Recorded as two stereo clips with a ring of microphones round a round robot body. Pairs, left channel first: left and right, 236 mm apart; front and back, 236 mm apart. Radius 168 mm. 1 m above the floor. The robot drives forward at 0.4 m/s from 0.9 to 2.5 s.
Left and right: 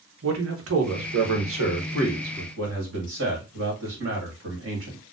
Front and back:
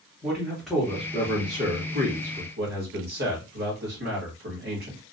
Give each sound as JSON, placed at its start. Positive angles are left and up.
{"t": 0.2, "sound": "a man speaking", "azimuth_deg": -90, "distance_m": 0.9}